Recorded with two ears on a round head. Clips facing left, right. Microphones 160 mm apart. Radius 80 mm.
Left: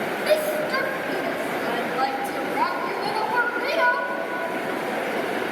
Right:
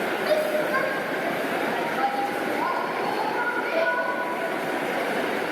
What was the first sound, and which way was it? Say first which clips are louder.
A shout: left 2 dB; 35° left (ahead or behind).